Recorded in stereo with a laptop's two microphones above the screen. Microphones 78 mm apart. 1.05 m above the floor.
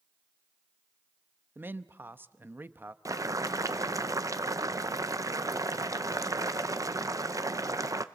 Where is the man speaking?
25° right (ahead or behind), 0.9 m.